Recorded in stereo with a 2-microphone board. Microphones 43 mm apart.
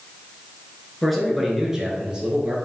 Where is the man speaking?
5° left (ahead or behind), 1.1 m; by 2.5 s 25° right (ahead or behind), 1.5 m.